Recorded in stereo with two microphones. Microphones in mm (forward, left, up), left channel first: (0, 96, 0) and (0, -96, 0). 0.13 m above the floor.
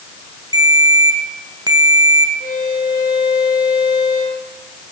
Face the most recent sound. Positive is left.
turn(degrees=45)  # may be behind; listen again after turning